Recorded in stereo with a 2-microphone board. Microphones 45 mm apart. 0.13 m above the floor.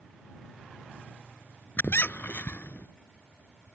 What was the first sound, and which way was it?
A squeak, 50° left (ahead or behind).